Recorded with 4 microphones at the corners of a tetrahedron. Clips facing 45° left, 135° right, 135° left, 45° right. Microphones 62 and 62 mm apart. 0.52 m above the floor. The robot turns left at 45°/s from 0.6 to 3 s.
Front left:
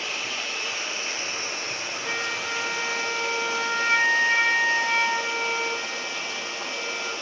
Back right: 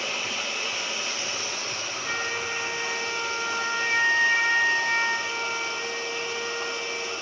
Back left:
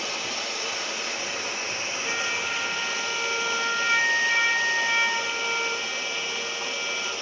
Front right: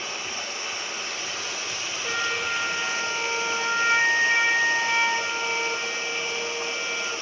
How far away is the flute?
About 3.5 m.